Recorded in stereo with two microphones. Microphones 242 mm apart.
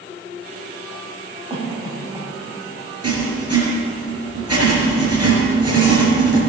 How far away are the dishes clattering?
I don't hear dishes clattering.